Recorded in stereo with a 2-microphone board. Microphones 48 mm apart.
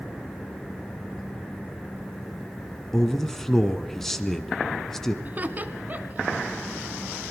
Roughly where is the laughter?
Right.